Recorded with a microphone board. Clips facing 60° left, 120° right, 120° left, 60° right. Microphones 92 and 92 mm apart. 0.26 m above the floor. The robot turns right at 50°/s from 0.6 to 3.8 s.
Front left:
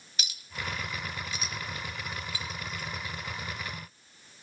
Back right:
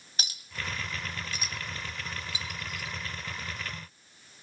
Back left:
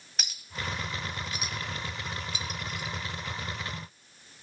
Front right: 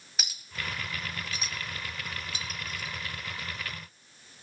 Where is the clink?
150° right, 0.8 m; by 3.0 s 30° right, 0.8 m.